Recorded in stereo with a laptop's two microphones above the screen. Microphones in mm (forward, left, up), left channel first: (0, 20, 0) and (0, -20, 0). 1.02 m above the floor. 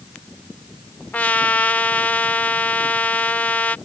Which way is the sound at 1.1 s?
40° left (ahead or behind).